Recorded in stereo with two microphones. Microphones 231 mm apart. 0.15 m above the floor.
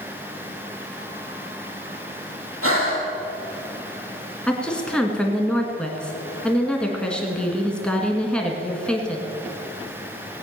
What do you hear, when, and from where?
2.6 s breathing: 70° right (ahead or behind), 3.5 m
4.5 s a woman speaking: 5° left (ahead or behind), 2.0 m